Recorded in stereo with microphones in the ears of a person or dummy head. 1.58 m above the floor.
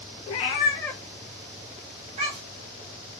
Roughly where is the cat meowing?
Left.